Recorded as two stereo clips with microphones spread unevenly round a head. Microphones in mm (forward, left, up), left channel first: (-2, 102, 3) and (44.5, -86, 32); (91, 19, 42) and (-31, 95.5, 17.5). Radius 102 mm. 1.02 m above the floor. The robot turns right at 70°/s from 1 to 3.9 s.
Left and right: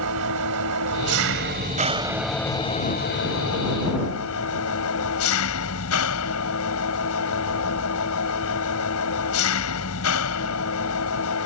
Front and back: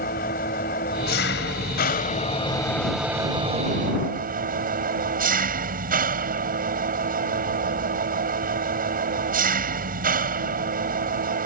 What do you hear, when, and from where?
0.0 s an engine running: 80° right; by 11.5 s 125° left